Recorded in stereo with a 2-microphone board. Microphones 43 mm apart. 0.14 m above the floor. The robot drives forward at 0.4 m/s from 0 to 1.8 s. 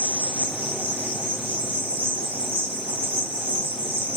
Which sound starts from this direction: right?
An insect, at 0.0 s.